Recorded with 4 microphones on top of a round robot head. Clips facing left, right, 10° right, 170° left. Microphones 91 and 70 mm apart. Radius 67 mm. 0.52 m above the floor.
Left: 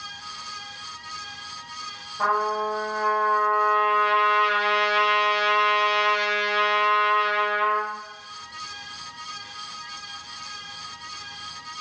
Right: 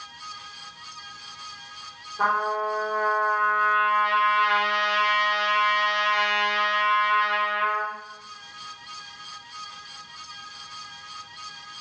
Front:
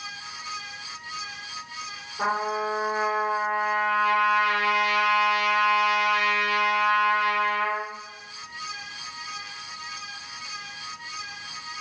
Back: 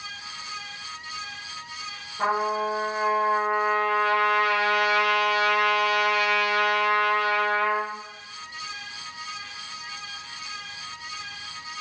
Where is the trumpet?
65° right, 1.7 m.